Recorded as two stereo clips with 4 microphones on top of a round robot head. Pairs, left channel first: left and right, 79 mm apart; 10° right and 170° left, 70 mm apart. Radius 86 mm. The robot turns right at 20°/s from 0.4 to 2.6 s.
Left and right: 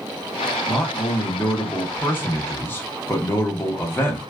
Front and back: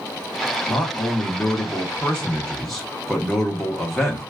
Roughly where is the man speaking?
Ahead left.